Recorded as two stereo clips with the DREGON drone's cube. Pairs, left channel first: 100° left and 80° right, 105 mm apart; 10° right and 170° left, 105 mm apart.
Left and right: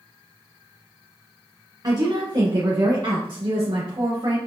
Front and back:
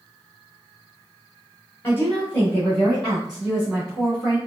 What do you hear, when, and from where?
1.8 s a woman speaking: 70° right, 1.4 m; by 4.4 s 115° right, 2.5 m